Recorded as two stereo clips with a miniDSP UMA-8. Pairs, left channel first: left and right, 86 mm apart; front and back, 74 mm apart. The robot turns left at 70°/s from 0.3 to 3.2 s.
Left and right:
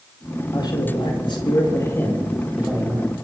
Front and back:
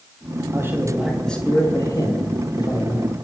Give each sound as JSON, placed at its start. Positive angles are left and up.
{"t": 0.5, "sound": "a man speaking", "azimuth_deg": 130, "distance_m": 6.0}